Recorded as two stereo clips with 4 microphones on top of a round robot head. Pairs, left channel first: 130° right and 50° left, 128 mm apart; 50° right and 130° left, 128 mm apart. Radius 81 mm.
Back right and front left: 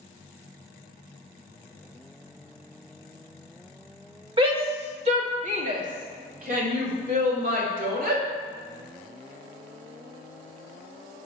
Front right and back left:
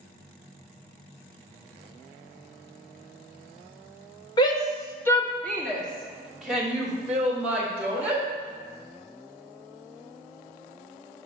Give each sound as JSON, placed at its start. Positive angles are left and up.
{"t": 4.4, "sound": "a shout", "azimuth_deg": 5, "distance_m": 1.8}